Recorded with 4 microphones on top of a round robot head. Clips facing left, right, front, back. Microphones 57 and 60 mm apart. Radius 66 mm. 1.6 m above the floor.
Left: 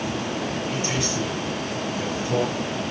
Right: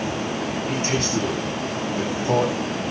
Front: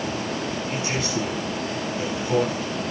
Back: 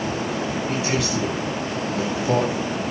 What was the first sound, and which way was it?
A man speaking, 150° right.